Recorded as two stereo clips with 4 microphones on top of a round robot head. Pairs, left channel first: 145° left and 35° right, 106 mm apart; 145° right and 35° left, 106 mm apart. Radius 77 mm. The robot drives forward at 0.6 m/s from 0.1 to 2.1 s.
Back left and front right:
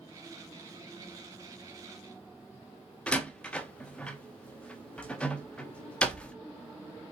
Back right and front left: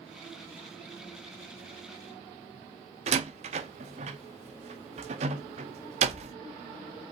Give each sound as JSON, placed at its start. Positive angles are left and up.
{"t": 3.1, "sound": "a door slam", "azimuth_deg": 65, "distance_m": 1.1}